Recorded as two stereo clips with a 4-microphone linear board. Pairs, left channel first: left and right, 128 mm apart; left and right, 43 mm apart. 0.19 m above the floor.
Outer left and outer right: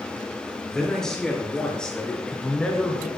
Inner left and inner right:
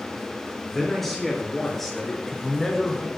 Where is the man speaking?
5° left (ahead or behind), 4 m; by 3.1 s 10° left (ahead or behind), 3 m.